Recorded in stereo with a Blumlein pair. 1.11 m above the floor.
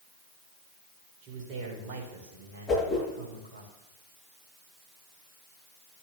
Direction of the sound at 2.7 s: 10° left.